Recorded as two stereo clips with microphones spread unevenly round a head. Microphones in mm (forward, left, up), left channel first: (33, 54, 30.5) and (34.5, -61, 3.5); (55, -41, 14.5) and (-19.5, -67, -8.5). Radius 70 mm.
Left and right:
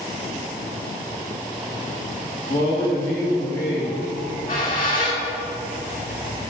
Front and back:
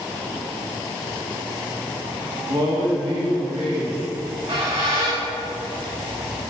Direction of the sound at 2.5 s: 160° left.